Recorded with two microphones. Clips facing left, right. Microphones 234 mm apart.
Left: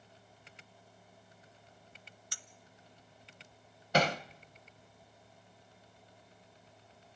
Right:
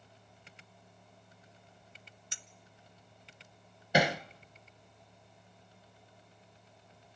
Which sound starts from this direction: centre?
Hammering, at 3.9 s.